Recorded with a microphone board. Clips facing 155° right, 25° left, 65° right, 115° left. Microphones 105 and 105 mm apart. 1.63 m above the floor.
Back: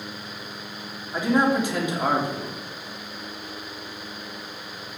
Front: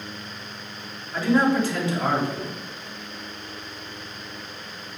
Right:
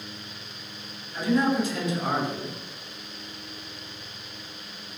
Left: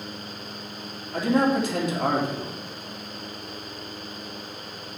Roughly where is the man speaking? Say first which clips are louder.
Front 1 dB, left 2 dB; behind left.